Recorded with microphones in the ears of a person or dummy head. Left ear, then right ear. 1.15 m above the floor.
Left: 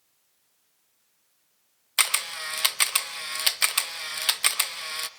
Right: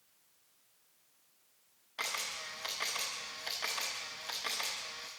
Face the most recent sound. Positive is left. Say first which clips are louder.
# left 12 dB
turn(degrees=45)  # may be behind; listen again after turning